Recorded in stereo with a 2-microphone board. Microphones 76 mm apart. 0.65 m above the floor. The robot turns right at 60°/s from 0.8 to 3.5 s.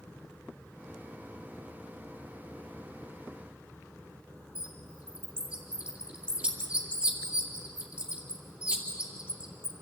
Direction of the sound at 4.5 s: 15° right (ahead or behind).